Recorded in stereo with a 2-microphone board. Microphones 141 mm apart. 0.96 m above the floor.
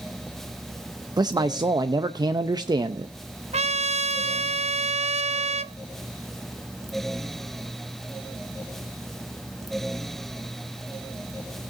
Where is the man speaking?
30° right (ahead or behind), 0.6 m.